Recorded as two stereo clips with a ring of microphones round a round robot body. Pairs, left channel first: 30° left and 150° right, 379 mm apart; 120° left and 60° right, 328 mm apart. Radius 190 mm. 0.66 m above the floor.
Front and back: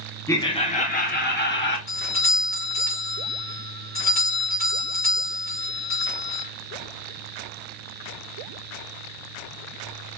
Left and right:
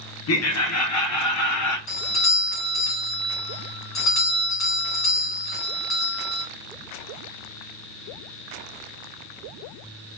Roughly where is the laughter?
Left.